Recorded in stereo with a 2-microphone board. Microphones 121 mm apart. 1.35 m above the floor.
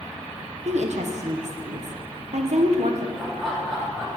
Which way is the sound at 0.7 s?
70° right (ahead or behind).